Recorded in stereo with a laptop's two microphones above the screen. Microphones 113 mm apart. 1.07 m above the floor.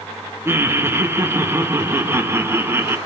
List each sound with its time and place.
0.5 s laughter: 20° right (ahead or behind), 1.3 m